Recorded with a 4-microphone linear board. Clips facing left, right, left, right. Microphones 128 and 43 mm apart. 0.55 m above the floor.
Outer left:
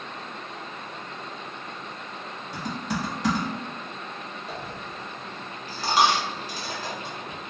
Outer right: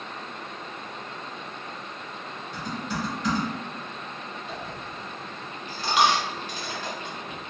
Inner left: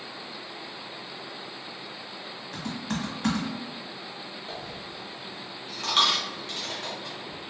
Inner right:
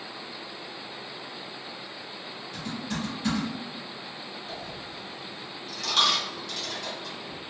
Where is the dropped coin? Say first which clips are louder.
Even, even; 35° left (ahead or behind), 0.9 m.